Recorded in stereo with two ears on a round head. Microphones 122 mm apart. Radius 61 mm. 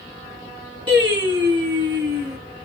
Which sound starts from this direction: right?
Singing, at 0.9 s.